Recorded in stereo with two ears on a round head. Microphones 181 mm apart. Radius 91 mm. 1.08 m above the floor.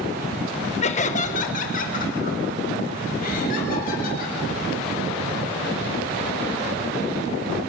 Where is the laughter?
35° left (ahead or behind), 0.9 m; by 4.4 s 45° left (ahead or behind), 4.5 m.